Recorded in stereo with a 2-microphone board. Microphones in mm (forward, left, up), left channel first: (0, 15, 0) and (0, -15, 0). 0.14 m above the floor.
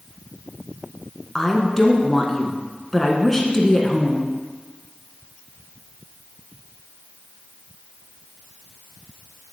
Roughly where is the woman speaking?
Centre.